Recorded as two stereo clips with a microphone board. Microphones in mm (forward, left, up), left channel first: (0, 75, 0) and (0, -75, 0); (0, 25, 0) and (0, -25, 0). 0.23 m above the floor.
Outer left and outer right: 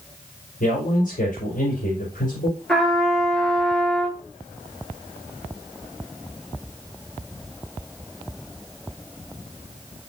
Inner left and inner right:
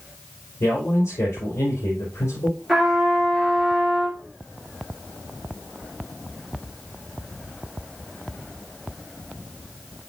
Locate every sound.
0.6 s a man speaking: 65° left (ahead or behind), 5 m
2.7 s a trumpet: 5° left (ahead or behind), 3 m